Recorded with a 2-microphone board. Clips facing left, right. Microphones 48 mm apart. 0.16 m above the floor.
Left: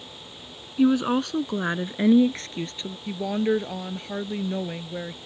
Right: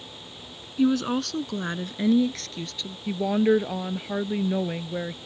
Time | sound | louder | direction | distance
0.8 | a woman speaking | left 2 dB | 15° left (ahead or behind) | ?
3.1 | a woman speaking | right 3 dB | 10° right (ahead or behind) | ?